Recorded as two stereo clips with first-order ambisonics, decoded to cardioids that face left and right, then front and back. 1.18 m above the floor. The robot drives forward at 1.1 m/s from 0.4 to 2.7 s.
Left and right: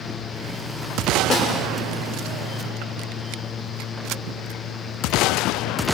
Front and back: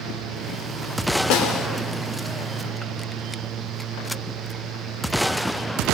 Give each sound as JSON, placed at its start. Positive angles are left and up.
{"t": 1.3, "sound": "a snare drum", "azimuth_deg": 20, "distance_m": 2.5}